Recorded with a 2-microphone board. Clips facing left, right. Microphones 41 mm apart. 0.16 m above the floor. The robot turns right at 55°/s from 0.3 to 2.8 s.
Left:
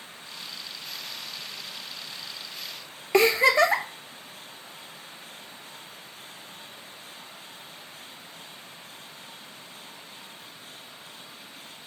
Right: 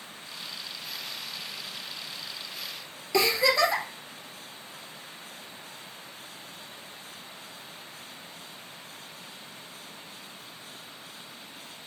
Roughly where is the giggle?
Left.